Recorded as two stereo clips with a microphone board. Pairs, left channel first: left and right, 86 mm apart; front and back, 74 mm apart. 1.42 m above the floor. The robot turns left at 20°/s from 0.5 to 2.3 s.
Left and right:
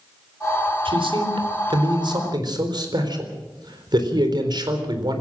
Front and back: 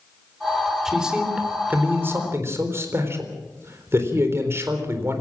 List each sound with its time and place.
0.8 s a man speaking: 95° right, 4 m; by 5.2 s 125° right, 4 m